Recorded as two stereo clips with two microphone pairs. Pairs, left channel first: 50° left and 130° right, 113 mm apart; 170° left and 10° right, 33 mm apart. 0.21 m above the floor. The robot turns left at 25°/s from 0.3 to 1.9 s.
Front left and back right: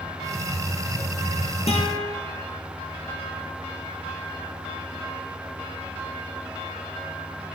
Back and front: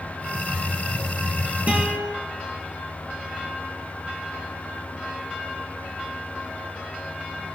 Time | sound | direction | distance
1.7 | a guitar | 35° left | 2 m